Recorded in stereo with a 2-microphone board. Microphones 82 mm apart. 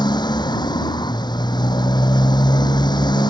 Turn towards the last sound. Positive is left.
turn(degrees=65)  # may be behind; listen again after turning